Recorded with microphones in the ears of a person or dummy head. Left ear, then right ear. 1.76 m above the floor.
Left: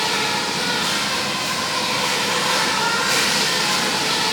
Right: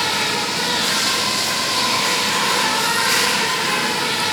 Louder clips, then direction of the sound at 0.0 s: Right 1 dB; 5° right (ahead or behind).